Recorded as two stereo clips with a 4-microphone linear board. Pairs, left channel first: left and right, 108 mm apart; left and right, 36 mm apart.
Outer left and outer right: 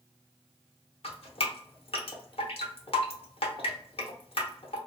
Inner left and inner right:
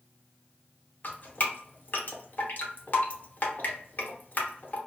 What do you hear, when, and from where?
1.0 s dripping: 60° left (ahead or behind), 0.7 m